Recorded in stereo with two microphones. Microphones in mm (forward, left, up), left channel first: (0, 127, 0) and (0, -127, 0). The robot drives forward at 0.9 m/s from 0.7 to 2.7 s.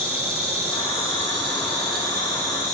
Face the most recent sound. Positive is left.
turn(degrees=-30)  # may be behind; listen again after turning